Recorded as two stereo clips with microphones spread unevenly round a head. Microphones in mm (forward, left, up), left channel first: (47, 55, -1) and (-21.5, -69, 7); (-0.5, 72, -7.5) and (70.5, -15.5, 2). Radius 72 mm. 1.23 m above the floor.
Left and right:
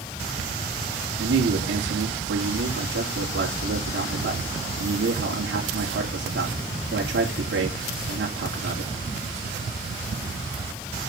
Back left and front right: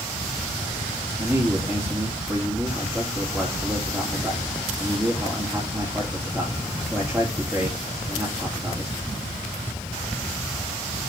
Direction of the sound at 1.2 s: 135° right.